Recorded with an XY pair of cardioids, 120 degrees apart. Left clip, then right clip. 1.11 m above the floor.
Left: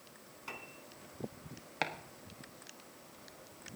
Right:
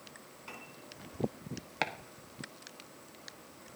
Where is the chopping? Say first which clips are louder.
Right 2 dB; 15° right, 1.2 m.